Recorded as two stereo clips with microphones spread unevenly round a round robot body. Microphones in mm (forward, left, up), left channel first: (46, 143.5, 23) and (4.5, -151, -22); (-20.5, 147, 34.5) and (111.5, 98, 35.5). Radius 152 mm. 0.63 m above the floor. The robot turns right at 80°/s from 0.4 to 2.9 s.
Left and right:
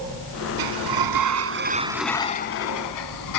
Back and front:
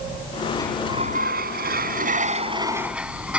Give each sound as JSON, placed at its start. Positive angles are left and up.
{"t": 0.6, "sound": "a sliding door", "azimuth_deg": -125}